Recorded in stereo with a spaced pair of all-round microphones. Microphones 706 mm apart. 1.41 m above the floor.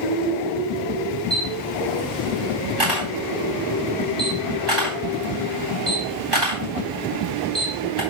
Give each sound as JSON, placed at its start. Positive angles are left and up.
{"t": 1.3, "sound": "a camera shutter", "side_deg": -35, "distance_m": 3.5}